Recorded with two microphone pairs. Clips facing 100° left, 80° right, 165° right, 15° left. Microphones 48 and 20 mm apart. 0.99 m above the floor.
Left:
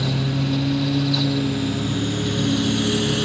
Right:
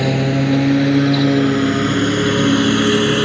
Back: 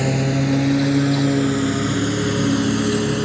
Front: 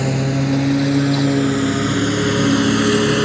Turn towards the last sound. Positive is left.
turn(degrees=-40)